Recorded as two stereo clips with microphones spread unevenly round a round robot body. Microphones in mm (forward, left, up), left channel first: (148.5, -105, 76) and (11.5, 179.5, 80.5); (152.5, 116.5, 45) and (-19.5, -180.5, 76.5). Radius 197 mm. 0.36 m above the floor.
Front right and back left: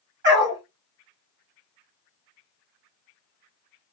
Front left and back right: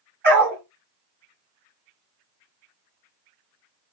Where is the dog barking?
175° left, 1.3 m.